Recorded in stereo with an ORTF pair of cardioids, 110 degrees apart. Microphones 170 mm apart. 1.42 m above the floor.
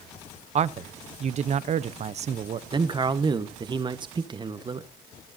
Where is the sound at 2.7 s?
25° right, 1.2 m.